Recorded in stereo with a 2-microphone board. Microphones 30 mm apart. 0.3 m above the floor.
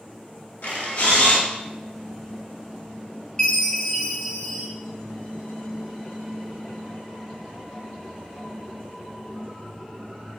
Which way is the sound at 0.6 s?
70° left (ahead or behind).